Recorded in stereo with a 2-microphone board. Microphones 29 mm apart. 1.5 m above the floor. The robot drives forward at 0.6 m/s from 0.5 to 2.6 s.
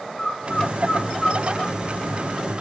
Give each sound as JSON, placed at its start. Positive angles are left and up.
{"t": 0.2, "sound": "a bird", "side_deg": 30, "distance_m": 1.4}